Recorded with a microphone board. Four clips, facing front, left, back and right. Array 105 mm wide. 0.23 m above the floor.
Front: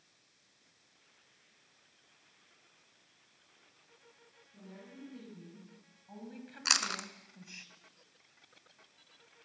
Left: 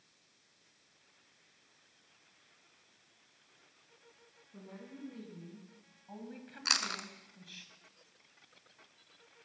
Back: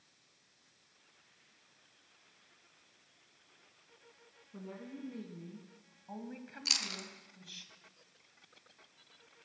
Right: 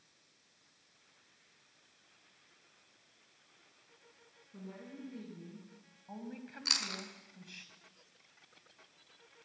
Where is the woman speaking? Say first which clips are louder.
Right 2 dB, back 5 dB; 175° right, 3 m; by 7.7 s 20° right, 1.7 m.